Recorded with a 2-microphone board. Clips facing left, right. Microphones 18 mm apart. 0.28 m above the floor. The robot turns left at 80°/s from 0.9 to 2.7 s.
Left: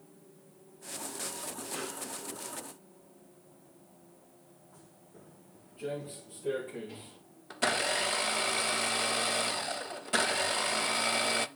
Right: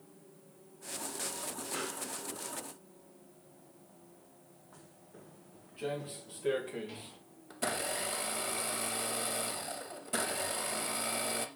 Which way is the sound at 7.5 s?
40° left (ahead or behind).